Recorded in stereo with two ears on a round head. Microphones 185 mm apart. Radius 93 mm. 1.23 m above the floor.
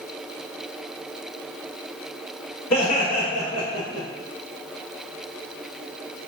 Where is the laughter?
75° left (ahead or behind), 1.8 m; by 4.1 s 70° left (ahead or behind), 0.8 m.